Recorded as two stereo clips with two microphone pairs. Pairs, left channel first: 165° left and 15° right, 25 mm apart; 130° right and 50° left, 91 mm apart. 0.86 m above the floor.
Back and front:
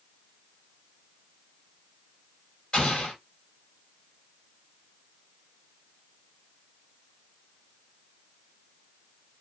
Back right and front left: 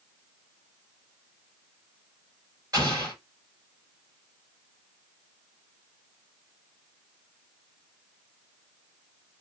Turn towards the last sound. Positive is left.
turn(degrees=100)